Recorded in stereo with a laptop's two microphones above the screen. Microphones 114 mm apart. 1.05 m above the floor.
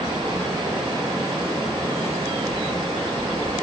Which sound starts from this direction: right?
Running water, at 0.0 s.